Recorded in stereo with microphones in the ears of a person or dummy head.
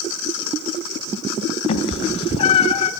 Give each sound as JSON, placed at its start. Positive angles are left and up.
{"t": 1.7, "sound": "a cat meowing", "side_deg": 35, "distance_m": 2.0}